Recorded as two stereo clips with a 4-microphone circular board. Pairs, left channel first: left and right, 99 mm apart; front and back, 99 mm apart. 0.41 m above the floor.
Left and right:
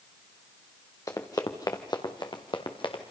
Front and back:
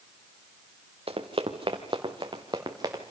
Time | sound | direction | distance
1.1 | running footsteps | 150° left | 2.5 m